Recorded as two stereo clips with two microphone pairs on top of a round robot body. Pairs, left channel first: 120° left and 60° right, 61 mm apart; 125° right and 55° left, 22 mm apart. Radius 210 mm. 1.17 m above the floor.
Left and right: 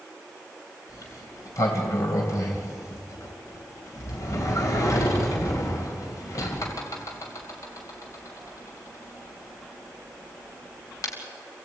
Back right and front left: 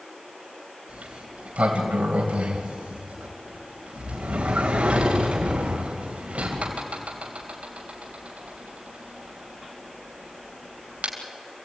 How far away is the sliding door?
About 2.5 m.